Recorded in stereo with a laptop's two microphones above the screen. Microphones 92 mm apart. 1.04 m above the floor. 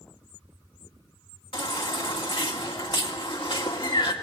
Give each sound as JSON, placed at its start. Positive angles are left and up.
{"t": 1.5, "sound": "a baby crying", "side_deg": 75, "distance_m": 2.0}